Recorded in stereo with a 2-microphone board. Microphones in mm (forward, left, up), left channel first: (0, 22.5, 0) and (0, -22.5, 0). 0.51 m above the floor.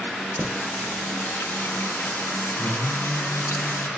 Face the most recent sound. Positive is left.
turn(degrees=60)  # may be behind; listen again after turning